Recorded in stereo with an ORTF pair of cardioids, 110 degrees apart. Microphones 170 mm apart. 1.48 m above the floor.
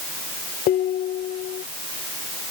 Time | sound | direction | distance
0.7 | dishes clattering | 60° left | ?